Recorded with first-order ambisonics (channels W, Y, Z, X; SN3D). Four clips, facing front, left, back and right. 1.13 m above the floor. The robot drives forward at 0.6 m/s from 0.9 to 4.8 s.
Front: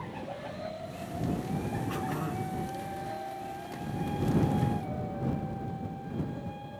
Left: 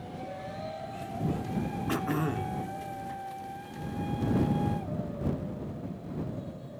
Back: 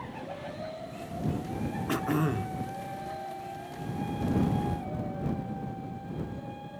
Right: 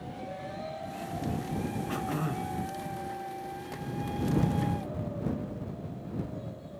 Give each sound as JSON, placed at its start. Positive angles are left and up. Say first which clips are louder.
{"t": 1.9, "sound": "throat clearing", "louder": "left 5 dB, back 5 dB", "azimuth_deg": 145, "distance_m": 1.6}